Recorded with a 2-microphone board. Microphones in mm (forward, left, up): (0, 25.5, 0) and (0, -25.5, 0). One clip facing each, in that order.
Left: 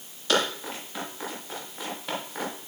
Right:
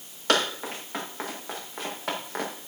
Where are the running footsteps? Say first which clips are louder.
Right 1 dB; 55° right (ahead or behind), 8 m; by 2.5 s 75° right (ahead or behind), 6.5 m.